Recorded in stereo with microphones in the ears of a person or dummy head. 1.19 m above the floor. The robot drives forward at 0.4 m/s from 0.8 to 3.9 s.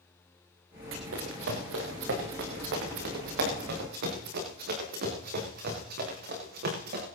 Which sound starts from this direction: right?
Running footsteps, at 0.9 s.